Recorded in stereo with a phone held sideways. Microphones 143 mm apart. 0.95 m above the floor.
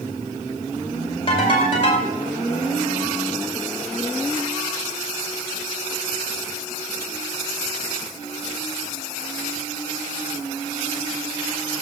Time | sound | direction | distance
1.3 | a ringtone | 40° left (ahead or behind) | 2 m